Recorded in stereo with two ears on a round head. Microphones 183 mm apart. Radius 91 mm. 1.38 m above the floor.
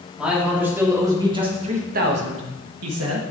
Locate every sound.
0.2 s a man speaking: 5° right (ahead or behind), 3 m; by 3.2 s 75° right (ahead or behind), 1.6 m